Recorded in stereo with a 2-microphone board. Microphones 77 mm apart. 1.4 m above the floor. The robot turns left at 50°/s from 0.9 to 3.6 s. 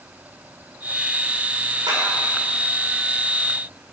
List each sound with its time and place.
1.9 s a clap: 70° right (ahead or behind), 4.5 m; by 2.0 s 65° right (ahead or behind), 4.5 m